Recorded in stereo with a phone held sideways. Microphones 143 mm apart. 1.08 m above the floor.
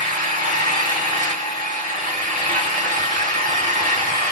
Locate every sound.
0.0 s an engine running: 65° right (ahead or behind), 2.5 m